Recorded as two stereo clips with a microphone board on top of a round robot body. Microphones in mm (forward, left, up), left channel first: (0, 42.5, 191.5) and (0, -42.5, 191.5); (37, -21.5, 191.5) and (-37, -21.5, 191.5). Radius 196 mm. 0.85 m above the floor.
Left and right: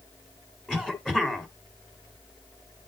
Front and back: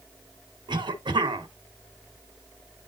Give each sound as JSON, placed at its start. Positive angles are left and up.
{"t": 0.7, "sound": "a cough", "azimuth_deg": 175, "distance_m": 1.8}